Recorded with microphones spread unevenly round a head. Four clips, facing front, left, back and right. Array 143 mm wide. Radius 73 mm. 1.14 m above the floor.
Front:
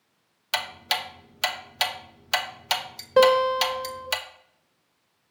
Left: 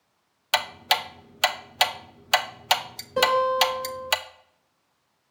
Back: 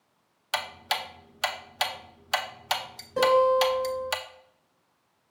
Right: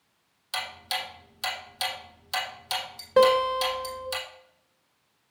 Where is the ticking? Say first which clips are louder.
Left 9 dB, front 1 dB; 70° left, 0.8 m.